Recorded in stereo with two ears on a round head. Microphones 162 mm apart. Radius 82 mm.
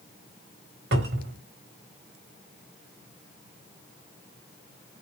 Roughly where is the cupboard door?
Right.